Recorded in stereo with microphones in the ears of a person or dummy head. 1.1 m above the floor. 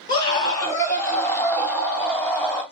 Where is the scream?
25° left (ahead or behind), 1.5 m; by 2.6 s 5° left (ahead or behind), 3 m.